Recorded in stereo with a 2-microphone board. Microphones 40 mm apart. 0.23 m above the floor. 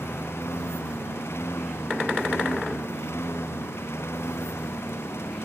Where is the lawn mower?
85° left.